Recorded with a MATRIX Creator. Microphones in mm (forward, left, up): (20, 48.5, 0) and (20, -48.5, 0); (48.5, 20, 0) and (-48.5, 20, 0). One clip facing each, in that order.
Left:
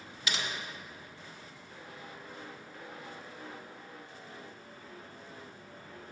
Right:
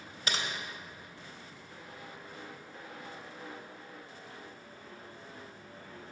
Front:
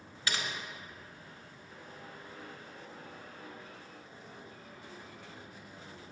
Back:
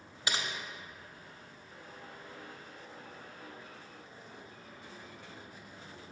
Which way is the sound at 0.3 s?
115° right.